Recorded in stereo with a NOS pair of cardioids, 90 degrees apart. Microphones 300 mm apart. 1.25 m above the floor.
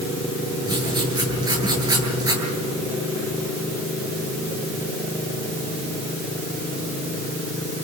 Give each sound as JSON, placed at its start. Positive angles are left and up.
{"t": 0.7, "sound": "writing", "azimuth_deg": -15, "distance_m": 9.0}